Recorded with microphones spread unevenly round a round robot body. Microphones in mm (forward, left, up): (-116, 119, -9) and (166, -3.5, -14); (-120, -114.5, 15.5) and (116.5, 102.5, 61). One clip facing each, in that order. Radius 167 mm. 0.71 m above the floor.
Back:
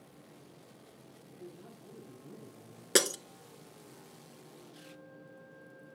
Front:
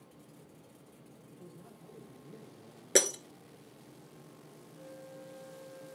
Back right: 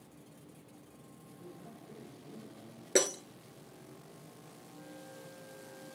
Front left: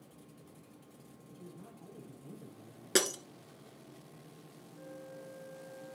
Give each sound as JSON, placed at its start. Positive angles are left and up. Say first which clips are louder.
{"t": 1.3, "sound": "a man speaking", "louder": "back 4 dB, back right 1 dB", "azimuth_deg": 110, "distance_m": 4.5}
{"t": 3.0, "sound": "breaking glass", "louder": "even, back right 2 dB", "azimuth_deg": 95, "distance_m": 0.8}
{"t": 4.7, "sound": "a flute", "louder": "front 3 dB, front left 3 dB", "azimuth_deg": 130, "distance_m": 4.5}